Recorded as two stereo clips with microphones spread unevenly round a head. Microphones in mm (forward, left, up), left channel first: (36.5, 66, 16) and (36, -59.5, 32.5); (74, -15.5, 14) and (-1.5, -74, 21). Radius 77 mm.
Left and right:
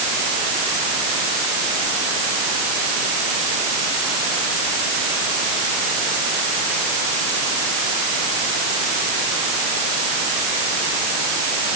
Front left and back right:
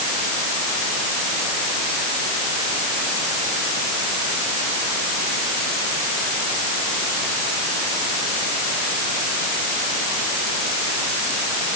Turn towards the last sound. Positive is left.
No sound to turn to.